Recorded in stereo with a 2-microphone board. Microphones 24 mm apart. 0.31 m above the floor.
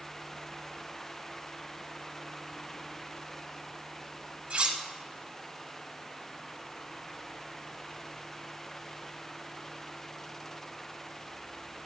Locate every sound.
4.5 s cutlery clinking: 60° right (ahead or behind), 0.9 m